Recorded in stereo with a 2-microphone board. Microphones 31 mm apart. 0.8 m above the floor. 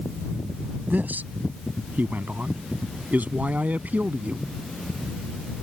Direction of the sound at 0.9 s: 75° right (ahead or behind).